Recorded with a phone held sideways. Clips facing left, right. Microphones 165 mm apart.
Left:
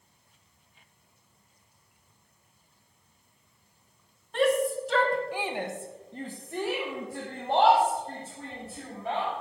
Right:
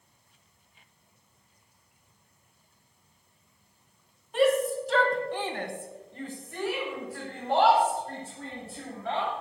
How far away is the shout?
About 2 m.